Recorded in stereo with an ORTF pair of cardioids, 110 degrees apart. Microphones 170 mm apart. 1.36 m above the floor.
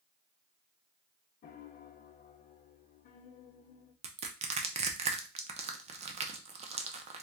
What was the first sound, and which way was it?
A piano, 55° left.